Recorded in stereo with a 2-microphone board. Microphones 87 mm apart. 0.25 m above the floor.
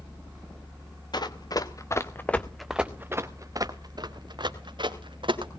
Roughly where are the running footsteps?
Left.